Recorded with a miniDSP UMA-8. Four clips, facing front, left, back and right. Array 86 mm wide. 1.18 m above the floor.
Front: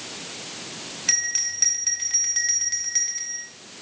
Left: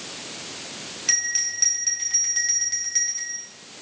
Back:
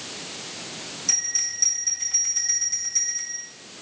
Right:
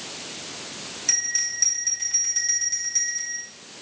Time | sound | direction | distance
1.1 | a bell | 25° left | 3 m